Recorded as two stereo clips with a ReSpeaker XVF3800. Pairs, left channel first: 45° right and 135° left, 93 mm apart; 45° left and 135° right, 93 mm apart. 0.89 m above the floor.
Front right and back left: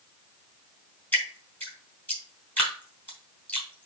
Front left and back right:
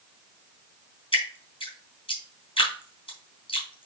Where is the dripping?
25° left, 3.5 m.